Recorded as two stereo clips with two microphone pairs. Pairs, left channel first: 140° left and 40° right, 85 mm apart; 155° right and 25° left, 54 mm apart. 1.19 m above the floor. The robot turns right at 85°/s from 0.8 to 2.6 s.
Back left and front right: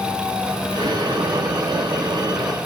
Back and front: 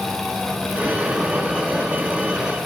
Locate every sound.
Only background noise.